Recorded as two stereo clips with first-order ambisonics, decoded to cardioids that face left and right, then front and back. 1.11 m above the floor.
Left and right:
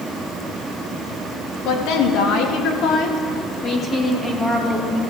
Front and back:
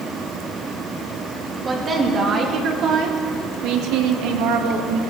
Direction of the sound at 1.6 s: 110° left.